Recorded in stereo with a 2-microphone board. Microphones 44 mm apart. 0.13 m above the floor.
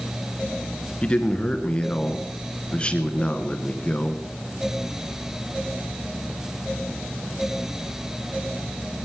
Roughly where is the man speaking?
Left.